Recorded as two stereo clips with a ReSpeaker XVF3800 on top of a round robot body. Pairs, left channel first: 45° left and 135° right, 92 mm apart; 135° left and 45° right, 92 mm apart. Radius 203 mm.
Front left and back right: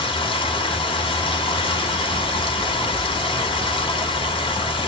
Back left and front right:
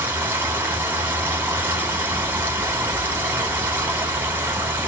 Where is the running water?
25° left, 2 m.